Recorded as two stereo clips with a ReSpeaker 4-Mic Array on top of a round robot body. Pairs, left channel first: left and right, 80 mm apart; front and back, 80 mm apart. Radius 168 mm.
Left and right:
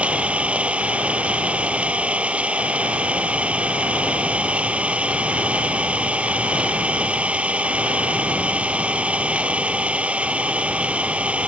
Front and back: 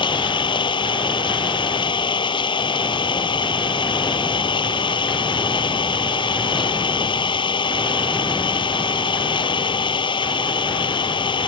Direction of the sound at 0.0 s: 15° right.